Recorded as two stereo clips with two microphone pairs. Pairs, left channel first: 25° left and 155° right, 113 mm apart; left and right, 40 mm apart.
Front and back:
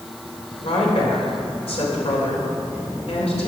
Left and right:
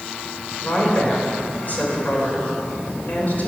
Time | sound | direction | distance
0.6 | a woman speaking | 50° left | 3 m